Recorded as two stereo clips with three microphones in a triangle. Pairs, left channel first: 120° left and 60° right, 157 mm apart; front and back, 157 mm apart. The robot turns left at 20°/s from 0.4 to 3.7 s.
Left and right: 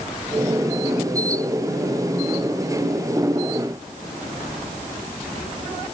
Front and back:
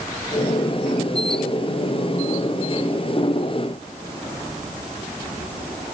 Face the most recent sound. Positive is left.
No sound to turn to.